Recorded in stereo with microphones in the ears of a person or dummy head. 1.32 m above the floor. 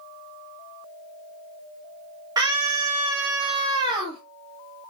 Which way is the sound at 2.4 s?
20° right (ahead or behind).